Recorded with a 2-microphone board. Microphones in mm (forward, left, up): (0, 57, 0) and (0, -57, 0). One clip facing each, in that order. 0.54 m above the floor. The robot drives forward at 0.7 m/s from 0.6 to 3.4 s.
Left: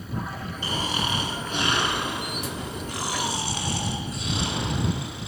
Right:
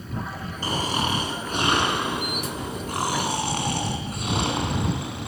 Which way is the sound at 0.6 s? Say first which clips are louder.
Right 3 dB; 40° right (ahead or behind).